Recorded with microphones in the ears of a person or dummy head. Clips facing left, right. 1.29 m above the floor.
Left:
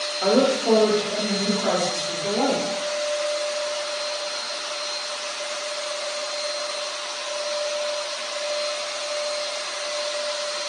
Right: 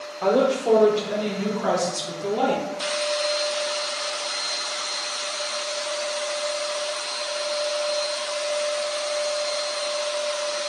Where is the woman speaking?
10° left (ahead or behind), 0.6 m; by 2.6 s 55° right (ahead or behind), 1.5 m.